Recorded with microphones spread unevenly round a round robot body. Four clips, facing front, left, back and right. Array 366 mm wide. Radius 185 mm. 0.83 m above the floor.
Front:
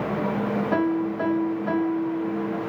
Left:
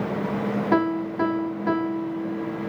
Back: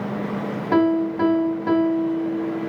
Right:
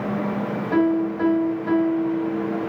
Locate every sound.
0.7 s a piano: 115° left, 1.5 m